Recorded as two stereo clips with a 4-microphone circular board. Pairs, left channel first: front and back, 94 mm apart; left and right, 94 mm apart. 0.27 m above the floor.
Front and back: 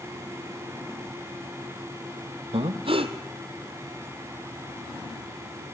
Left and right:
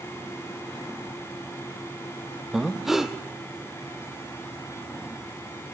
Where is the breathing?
175° right, 1.4 m.